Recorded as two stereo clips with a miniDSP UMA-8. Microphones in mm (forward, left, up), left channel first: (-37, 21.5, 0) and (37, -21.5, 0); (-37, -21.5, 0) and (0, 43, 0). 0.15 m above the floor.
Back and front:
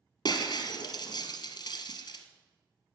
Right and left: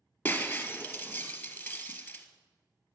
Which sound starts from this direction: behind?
Breaking glass, at 0.2 s.